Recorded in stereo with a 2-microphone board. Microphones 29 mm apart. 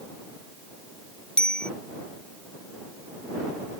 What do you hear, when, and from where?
1.4 s a bicycle bell: 25° left (ahead or behind)